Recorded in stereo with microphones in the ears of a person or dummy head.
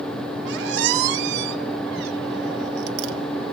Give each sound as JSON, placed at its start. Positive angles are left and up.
{"t": 0.5, "sound": "a squeak", "side_deg": -60, "distance_m": 1.2}